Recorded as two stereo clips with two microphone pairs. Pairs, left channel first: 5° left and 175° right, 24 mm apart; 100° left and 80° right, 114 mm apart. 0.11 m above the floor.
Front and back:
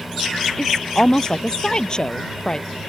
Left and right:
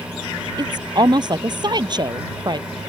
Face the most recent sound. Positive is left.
turn(degrees=-40)